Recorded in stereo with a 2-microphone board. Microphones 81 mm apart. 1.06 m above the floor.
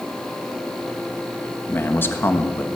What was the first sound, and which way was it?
A man speaking, 25° left (ahead or behind).